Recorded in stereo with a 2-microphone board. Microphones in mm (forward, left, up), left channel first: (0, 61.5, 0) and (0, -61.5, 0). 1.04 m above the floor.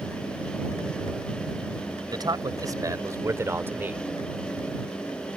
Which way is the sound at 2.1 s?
35° right (ahead or behind).